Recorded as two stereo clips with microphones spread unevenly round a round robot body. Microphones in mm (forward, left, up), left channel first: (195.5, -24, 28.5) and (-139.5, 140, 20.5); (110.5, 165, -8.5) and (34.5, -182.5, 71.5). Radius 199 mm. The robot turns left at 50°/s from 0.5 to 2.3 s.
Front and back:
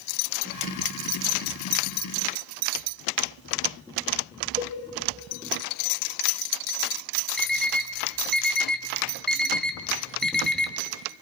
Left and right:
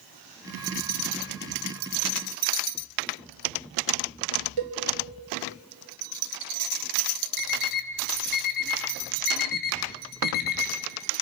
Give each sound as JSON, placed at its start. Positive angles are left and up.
{"t": 4.6, "sound": "a cowbell", "azimuth_deg": -130, "distance_m": 2.0}
{"t": 7.4, "sound": "an alarm clock", "azimuth_deg": 65, "distance_m": 1.6}